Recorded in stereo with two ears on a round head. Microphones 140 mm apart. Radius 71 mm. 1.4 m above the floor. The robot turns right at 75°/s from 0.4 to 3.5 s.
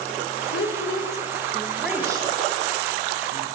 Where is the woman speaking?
75° left (ahead or behind), 1.3 m; by 3.5 s 55° right (ahead or behind), 1.3 m.